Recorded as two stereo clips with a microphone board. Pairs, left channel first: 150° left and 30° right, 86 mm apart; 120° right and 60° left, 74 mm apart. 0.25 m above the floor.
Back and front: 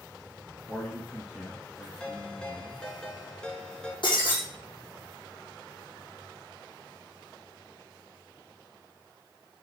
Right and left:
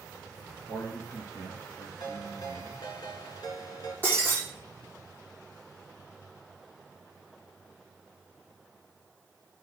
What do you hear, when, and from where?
0.7 s a man speaking: 125° right, 2.5 m
2.0 s a ringtone: 130° right, 2 m
4.0 s breaking glass: 175° left, 7 m